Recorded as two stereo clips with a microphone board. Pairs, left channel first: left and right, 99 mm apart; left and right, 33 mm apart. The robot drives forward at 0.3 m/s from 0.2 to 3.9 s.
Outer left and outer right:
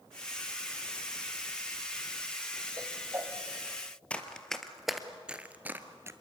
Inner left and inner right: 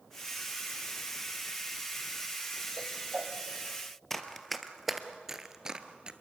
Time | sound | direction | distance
2.8 | a whoosh | 35° right (ahead or behind) | 1.5 m
4.1 | running footsteps | 10° left (ahead or behind) | 1.5 m